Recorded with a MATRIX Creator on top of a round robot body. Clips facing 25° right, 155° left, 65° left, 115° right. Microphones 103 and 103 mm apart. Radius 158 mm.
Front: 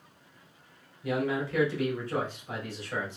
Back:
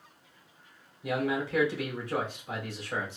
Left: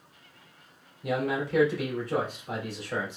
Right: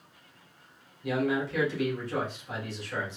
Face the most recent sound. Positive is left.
turn(degrees=90)